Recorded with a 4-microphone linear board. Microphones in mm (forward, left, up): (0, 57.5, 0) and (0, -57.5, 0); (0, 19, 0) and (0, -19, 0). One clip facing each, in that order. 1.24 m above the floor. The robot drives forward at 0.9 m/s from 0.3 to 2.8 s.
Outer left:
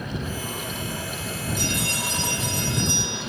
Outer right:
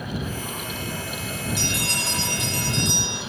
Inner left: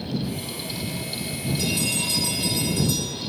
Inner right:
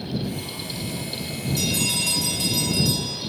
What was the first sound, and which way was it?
A bell, 75° right (ahead or behind).